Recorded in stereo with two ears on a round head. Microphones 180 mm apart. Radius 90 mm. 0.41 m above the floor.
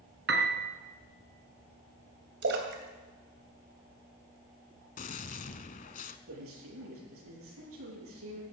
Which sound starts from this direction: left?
A gunshot, at 5.0 s.